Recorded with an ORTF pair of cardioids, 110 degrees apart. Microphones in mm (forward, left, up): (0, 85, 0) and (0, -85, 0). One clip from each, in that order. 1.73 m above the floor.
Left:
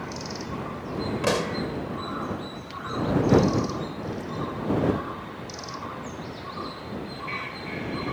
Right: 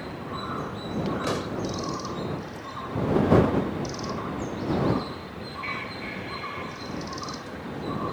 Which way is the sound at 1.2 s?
45° left.